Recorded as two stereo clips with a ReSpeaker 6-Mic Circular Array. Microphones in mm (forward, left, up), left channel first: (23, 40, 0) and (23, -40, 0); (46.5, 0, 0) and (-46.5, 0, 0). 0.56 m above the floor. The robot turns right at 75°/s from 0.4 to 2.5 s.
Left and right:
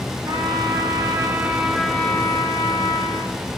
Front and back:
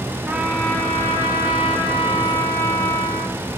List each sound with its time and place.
0.3 s a trumpet: 105° right, 1.5 m; by 3.4 s 55° left, 1.5 m